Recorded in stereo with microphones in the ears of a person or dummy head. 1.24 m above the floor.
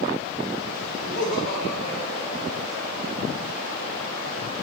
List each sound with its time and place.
1.0 s laughter: 75° left (ahead or behind), 5 m